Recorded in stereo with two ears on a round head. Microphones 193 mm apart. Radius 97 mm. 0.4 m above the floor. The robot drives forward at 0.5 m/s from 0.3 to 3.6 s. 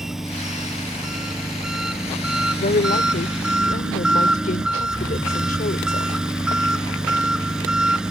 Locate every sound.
0.0 s an engine running: centre (ahead or behind); by 8.1 s 5° right (ahead or behind)
2.6 s a woman speaking: 35° left (ahead or behind)